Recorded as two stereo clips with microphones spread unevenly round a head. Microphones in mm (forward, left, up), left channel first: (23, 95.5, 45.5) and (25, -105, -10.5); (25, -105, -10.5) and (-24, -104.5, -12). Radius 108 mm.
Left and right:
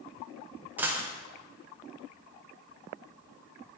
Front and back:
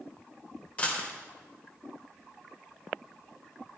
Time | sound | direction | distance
0.8 | a dropped coin | 15° left | 0.7 m